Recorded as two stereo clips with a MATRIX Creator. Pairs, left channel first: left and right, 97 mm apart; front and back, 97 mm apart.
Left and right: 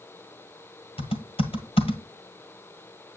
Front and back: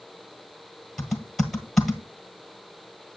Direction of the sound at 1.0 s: 90° left.